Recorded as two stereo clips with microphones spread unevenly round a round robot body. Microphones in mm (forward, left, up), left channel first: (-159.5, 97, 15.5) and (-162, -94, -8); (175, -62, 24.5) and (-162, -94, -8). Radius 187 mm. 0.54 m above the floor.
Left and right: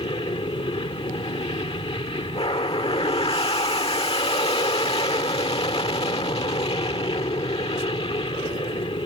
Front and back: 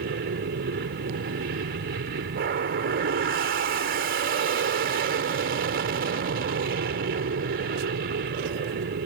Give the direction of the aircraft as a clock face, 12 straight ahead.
7 o'clock.